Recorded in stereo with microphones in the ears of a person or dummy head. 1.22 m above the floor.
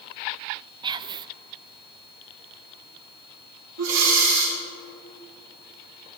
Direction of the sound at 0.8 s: 20° right (ahead or behind).